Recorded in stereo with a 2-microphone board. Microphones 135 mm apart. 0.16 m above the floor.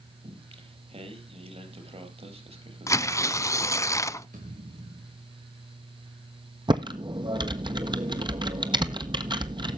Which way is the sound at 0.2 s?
45° right (ahead or behind).